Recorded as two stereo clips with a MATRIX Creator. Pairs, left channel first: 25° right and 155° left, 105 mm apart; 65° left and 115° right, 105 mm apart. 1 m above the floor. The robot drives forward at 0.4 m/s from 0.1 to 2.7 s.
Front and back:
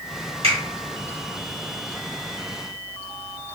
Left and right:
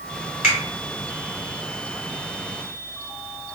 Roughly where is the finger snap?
Behind.